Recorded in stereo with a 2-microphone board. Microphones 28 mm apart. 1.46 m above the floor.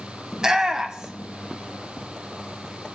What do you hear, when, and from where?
0.3 s a shout: 25° right (ahead or behind), 1.3 m